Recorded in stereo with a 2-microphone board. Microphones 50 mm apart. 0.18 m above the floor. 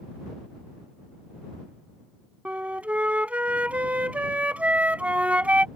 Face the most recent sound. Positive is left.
turn(degrees=-30)  # may be behind; listen again after turning